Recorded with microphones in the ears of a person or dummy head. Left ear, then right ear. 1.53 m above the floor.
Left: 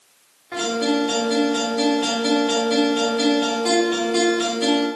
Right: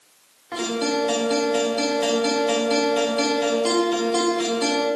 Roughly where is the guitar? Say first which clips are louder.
Left 2 dB; centre.